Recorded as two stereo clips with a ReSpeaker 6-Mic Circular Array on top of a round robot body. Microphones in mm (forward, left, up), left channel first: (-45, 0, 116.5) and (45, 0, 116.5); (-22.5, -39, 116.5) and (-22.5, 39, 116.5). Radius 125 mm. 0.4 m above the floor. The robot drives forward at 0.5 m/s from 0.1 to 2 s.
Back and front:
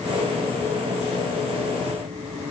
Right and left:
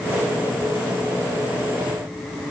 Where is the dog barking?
I don't hear a dog barking.